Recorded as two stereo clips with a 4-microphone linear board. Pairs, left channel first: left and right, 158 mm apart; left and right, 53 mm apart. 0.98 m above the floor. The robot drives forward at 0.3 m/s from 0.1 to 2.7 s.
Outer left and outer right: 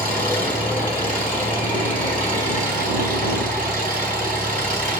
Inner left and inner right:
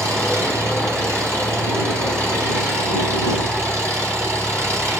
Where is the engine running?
60° right (ahead or behind), 6.5 m; by 5.0 s 55° right (ahead or behind), 7 m.